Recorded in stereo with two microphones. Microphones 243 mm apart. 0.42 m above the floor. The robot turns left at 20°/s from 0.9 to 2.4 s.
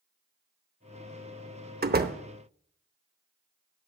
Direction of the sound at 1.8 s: 40° right (ahead or behind).